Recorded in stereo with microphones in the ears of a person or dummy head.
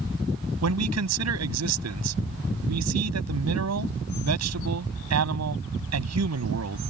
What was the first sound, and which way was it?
A man speaking, 80° right.